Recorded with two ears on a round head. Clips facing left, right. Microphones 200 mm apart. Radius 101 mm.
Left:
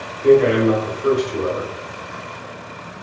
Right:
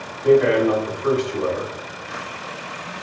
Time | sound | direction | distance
0.2 | a man speaking | 40° left (ahead or behind) | 1.5 m